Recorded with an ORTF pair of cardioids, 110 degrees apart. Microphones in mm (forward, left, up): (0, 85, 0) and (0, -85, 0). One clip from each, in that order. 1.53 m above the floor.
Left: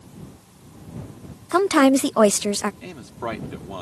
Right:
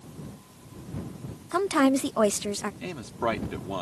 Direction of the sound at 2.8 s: 15° right.